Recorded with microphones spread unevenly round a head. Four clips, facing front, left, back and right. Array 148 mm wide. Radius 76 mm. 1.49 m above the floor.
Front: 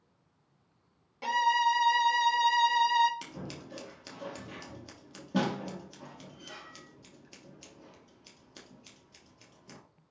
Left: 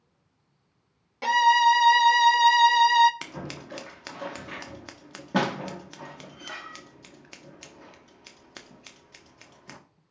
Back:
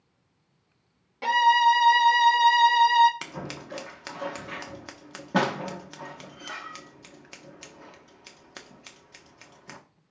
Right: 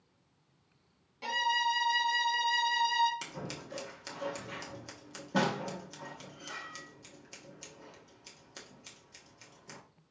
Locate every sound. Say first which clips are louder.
1.2 s a violin: left 13 dB, back 7 dB; 130° left, 0.7 m
3.2 s scissors: left 4 dB, back 6 dB; 140° left, 1.1 m